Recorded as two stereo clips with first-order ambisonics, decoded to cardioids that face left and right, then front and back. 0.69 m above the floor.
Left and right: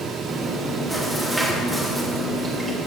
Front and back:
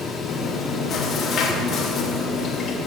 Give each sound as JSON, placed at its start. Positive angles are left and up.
{"t": 0.3, "sound": "chewing", "azimuth_deg": -15, "distance_m": 1.1}